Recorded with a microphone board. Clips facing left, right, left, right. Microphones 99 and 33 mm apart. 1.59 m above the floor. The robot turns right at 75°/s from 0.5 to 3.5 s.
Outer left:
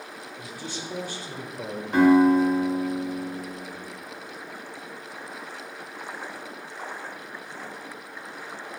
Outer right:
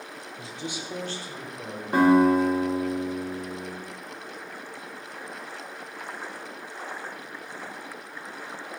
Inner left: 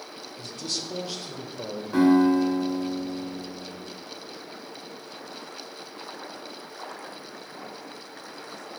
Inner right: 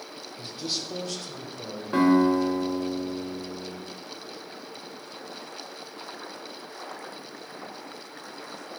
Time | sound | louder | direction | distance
0.4 | a man speaking | outer right 1 dB, inner right 1 dB | 30° right | 0.6 m
1.9 | a guitar | outer left 1 dB, inner left 1 dB | 45° right | 1.2 m